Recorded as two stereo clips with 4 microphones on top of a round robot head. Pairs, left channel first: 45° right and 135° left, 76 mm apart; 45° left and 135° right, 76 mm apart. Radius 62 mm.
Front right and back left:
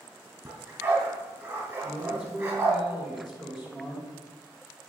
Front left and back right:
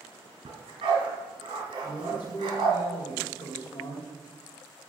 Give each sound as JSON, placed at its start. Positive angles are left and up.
{"t": 0.5, "sound": "a dog barking", "azimuth_deg": -165, "distance_m": 3.5}
{"t": 1.8, "sound": "a woman speaking", "azimuth_deg": 65, "distance_m": 3.0}